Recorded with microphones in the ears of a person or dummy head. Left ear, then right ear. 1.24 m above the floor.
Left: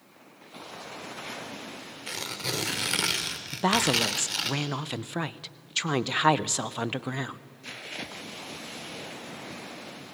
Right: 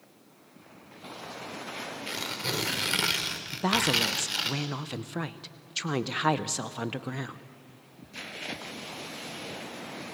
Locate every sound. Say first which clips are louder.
2.1 s tearing paper: left 1 dB; 5° left (ahead or behind), 1.3 m
3.5 s a woman speaking: left 2 dB; 20° left (ahead or behind), 0.6 m